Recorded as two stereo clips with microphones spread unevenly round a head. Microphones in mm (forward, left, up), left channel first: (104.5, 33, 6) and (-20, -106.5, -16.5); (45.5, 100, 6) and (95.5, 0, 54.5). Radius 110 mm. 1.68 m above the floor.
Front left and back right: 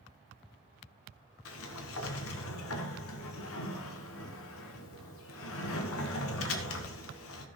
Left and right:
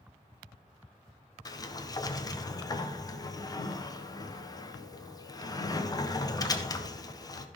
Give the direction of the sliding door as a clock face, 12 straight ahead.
10 o'clock.